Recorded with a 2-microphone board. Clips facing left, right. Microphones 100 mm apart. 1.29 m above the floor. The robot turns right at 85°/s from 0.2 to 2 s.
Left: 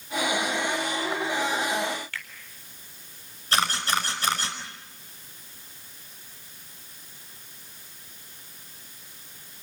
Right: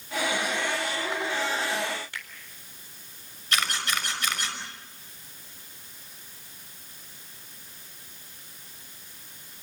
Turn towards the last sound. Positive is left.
turn(degrees=35)  # may be behind; listen again after turning